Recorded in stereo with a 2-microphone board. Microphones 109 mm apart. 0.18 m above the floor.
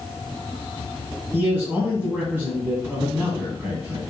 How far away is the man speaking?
About 1.2 m.